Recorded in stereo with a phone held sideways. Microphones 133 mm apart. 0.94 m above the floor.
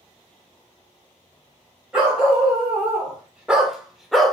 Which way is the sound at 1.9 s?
10° right (ahead or behind).